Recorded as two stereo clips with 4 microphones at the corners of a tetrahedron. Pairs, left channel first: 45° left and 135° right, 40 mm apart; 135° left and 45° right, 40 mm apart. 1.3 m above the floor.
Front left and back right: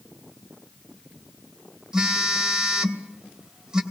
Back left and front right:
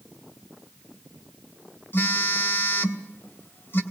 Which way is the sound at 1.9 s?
155° left.